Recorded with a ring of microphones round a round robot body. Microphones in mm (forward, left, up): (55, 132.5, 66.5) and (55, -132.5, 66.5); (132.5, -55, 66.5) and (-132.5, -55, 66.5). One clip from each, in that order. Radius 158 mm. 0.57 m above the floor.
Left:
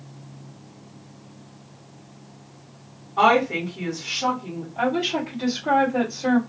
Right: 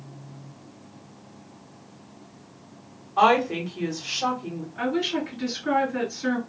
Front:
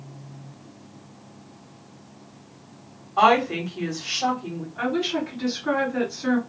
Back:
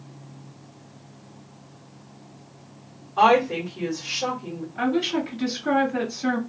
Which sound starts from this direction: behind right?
A woman speaking, at 4.8 s.